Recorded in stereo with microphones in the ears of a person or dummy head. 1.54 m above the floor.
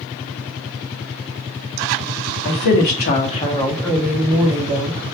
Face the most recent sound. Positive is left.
turn(degrees=-35)  # may be behind; listen again after turning